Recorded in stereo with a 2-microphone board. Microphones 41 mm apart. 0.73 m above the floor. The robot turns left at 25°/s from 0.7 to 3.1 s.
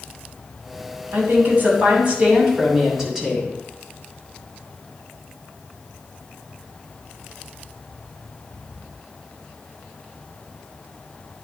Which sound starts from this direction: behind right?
A woman speaking, at 1.1 s.